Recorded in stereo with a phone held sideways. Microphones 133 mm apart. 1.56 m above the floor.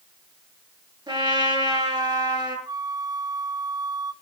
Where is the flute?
30° right (ahead or behind), 0.6 m.